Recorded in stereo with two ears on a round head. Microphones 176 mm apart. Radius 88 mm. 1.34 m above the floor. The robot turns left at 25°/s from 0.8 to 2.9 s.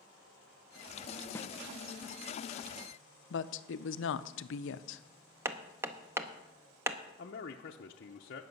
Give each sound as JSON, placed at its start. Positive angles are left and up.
{"t": 1.4, "sound": "a snare drum", "side_deg": 10, "distance_m": 0.6}
{"t": 3.3, "sound": "a woman speaking", "side_deg": 65, "distance_m": 0.6}
{"t": 5.5, "sound": "hammering", "side_deg": -15, "distance_m": 0.7}
{"t": 7.2, "sound": "a man speaking", "side_deg": 50, "distance_m": 0.7}